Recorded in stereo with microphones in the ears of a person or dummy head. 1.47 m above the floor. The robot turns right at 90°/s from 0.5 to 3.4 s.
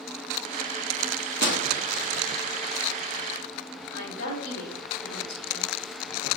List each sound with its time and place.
1.0 s a microwave: 20° right (ahead or behind), 0.7 m; by 1.6 s 75° right (ahead or behind), 0.7 m
3.9 s a woman speaking: 85° left, 1.5 m